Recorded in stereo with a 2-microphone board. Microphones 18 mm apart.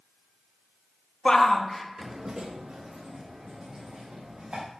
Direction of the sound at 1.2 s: 30° left (ahead or behind).